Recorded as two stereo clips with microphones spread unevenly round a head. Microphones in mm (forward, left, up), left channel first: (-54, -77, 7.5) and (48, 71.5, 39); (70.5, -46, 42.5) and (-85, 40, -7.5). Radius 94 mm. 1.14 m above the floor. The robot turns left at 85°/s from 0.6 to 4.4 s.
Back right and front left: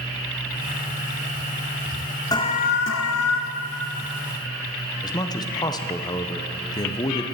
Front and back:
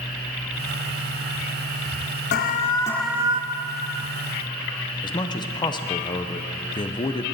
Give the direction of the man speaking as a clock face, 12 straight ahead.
3 o'clock.